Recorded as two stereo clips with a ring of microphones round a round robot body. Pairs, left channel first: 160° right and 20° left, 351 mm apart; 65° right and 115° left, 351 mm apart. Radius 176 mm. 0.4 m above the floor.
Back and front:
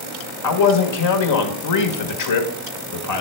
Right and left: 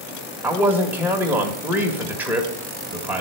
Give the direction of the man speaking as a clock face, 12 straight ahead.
5 o'clock.